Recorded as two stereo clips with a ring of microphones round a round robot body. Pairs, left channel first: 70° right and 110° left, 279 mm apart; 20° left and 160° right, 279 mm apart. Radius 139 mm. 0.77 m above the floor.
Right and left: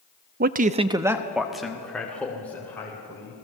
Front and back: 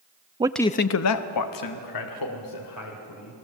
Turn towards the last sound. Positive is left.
turn(degrees=15)